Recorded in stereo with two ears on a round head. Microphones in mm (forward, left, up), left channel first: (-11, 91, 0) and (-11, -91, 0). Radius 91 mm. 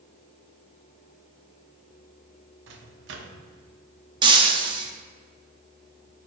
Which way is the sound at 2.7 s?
60° right (ahead or behind).